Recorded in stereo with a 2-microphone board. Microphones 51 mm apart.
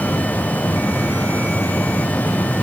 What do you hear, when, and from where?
Only background noise.